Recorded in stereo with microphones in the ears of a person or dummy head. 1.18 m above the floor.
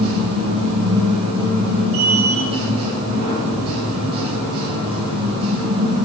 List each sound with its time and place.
0.0 s a machine running: 30° right (ahead or behind), 6.5 m